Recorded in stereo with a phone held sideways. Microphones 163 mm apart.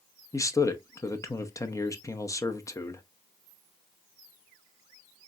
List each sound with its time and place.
0.3 s a man speaking: 20° left (ahead or behind), 0.7 m